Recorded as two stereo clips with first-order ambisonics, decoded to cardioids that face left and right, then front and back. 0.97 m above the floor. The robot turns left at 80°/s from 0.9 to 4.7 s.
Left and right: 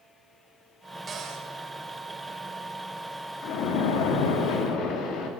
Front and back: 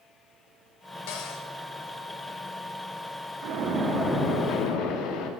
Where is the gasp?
No gasp in this recording.